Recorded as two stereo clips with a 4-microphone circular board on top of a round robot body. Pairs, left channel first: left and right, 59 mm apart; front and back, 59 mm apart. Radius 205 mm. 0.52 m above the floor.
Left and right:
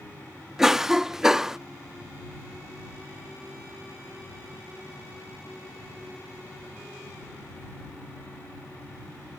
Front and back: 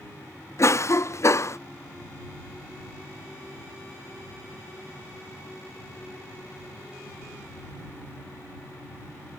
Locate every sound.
0.6 s a cough: 10° right